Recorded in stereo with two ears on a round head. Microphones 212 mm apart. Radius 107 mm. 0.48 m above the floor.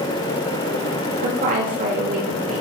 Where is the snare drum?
I don't hear a snare drum.